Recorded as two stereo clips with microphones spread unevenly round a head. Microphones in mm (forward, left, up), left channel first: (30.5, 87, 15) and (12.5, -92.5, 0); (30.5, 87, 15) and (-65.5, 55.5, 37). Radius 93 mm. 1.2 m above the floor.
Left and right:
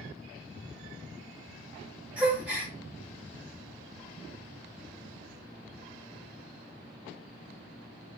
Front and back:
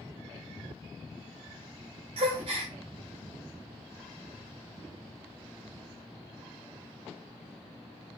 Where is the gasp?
Straight behind, 0.7 m.